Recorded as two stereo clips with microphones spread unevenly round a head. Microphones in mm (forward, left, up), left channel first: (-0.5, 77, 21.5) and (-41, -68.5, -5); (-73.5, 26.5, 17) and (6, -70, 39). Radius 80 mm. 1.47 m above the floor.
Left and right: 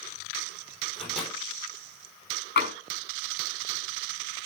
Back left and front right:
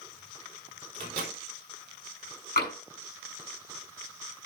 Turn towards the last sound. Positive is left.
turn(degrees=90)